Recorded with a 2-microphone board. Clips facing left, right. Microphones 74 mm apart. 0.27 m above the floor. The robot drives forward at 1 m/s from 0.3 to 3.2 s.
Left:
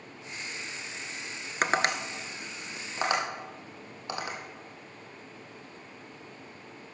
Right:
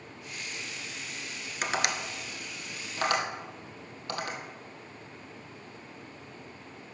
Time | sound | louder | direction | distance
1.6 | tapping | left 4 dB | 50° left (ahead or behind) | 0.8 m